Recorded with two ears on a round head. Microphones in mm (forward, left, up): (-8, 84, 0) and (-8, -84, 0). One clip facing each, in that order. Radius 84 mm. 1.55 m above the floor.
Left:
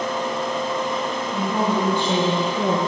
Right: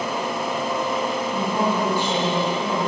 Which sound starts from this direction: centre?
A woman speaking, at 1.3 s.